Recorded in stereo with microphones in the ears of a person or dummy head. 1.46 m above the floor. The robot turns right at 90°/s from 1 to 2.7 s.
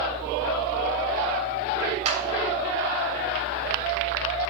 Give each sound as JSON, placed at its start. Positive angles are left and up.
{"t": 2.0, "sound": "a clap", "side_deg": -40, "distance_m": 3.5}